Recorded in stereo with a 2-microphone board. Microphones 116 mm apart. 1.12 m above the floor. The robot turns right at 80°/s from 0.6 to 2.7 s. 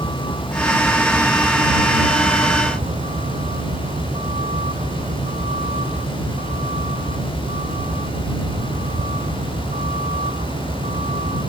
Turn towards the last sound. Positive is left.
turn(degrees=-75)  # may be behind; listen again after turning